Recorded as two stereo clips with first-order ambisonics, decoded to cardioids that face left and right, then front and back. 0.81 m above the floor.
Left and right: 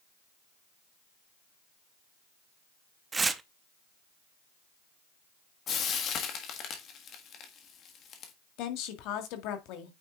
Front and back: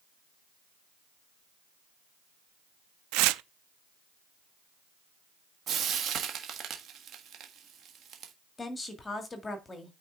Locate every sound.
3.1 s tearing paper: 165° right, 0.5 m
5.7 s frying: 135° left, 1.5 m
8.6 s a woman speaking: 75° left, 1.7 m